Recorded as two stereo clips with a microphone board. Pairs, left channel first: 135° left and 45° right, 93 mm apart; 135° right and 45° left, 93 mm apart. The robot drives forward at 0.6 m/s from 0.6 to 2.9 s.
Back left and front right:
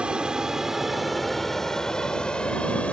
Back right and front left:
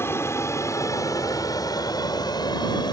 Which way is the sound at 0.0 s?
115° right.